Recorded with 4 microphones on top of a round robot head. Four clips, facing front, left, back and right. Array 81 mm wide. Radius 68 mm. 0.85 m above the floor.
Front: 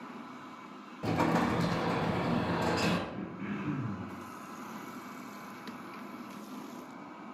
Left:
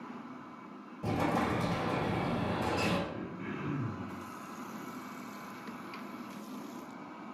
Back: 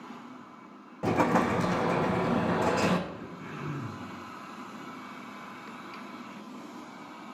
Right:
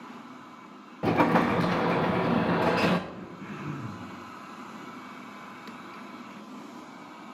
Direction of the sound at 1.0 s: 110° right.